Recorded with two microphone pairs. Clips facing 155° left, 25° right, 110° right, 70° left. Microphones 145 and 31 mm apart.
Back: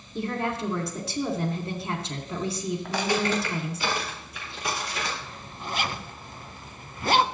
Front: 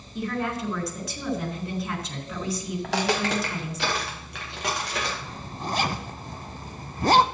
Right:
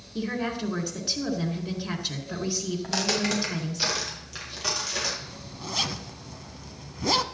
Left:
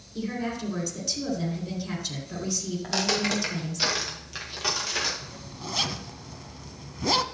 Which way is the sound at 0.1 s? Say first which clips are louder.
Even, right 2 dB; 155° right.